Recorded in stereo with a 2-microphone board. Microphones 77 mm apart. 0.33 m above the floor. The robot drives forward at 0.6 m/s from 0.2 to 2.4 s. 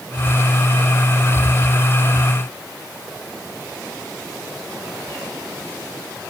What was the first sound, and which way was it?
Only background noise.